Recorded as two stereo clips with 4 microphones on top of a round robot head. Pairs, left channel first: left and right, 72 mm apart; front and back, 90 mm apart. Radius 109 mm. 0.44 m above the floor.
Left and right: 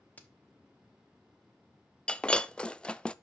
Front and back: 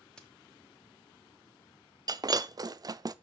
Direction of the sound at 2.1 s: 160° left.